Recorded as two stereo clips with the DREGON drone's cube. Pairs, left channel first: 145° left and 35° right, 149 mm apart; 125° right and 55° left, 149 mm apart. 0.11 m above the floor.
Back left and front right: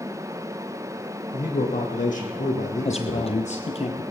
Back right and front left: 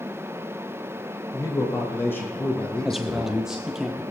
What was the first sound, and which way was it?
A man speaking, 170° left.